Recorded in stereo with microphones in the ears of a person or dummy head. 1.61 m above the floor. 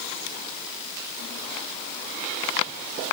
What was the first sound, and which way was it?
Only background noise.